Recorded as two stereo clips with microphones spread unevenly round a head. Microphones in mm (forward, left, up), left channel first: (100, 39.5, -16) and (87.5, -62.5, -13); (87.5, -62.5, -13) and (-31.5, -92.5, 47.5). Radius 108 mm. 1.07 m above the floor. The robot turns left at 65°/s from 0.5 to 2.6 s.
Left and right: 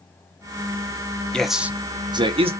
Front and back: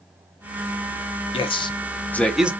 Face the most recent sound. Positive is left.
turn(degrees=-80)